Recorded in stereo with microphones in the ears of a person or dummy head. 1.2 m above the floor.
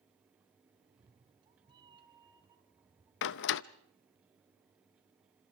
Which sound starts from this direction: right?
A cat meowing, at 0.8 s.